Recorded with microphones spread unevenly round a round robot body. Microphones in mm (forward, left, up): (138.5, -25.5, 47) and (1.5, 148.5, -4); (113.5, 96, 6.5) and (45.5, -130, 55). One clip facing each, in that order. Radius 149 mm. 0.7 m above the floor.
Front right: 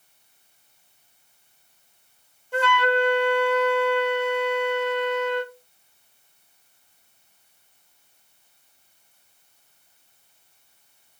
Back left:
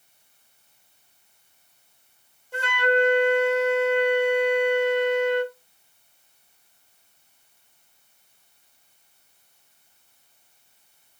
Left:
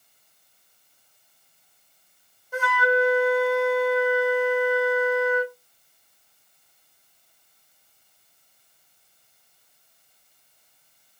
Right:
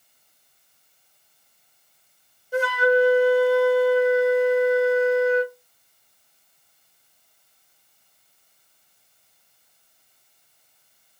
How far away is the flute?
About 1.3 m.